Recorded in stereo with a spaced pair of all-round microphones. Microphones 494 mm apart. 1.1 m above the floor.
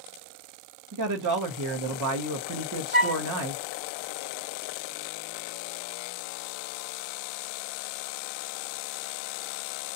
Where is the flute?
15° right (ahead or behind), 0.7 m.